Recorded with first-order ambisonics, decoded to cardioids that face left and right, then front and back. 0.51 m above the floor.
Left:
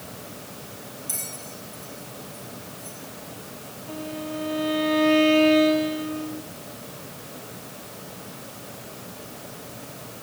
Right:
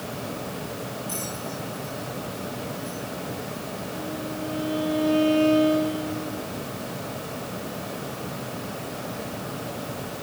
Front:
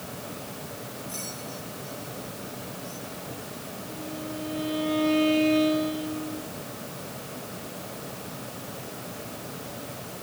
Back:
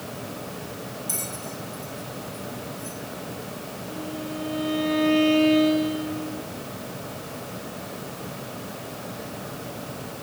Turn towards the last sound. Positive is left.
turn(degrees=110)